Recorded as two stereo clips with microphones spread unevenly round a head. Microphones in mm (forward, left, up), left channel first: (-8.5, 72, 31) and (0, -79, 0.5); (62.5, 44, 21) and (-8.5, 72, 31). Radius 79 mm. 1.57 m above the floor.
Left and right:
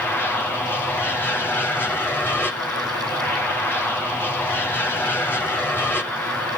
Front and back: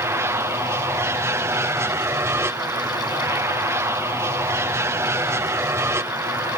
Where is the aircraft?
175° left.